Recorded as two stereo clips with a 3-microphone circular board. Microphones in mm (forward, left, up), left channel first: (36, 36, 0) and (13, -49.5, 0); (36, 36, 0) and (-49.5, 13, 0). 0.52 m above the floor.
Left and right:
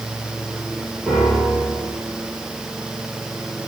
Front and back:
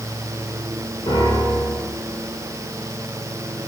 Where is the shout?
No shout in this recording.